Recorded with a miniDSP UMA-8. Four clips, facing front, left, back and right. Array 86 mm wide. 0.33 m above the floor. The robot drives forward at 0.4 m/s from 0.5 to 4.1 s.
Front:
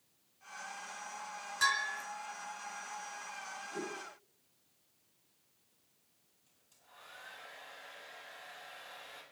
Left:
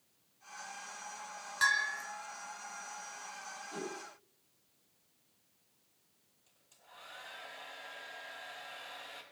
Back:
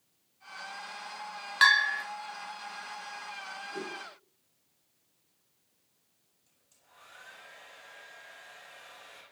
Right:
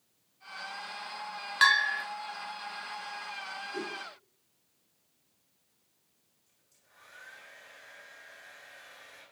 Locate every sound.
1.6 s a bell: 145° right, 1.0 m; by 2.0 s 150° right, 1.2 m
3.7 s a whoosh: 90° left, 8 m
6.5 s a hair dryer: 95° left, 6 m